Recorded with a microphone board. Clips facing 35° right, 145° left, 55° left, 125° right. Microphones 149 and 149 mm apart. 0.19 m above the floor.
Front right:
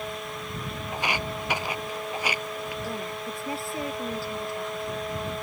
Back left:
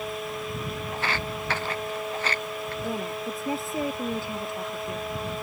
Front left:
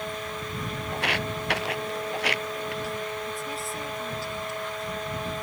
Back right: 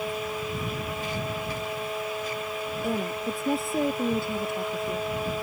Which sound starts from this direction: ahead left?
Footsteps, at 0.9 s.